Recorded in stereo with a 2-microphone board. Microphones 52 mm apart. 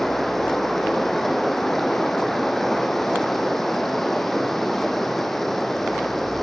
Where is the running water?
5° left (ahead or behind), 1.6 m.